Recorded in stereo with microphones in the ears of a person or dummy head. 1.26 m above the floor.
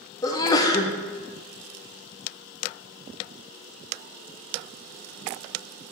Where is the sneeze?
25° left (ahead or behind), 0.6 m.